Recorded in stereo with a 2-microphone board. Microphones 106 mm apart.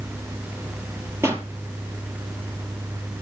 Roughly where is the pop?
Right.